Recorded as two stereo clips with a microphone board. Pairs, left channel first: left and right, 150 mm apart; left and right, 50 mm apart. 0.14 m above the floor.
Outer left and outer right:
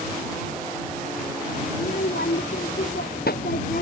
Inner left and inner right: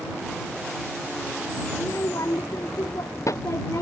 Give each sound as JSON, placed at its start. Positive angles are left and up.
{"t": 1.7, "sound": "a child speaking", "side_deg": 85}